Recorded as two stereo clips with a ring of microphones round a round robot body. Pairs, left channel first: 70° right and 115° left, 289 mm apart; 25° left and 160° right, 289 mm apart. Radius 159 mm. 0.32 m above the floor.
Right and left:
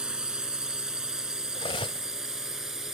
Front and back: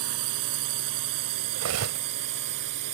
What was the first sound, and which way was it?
A drone, 160° right.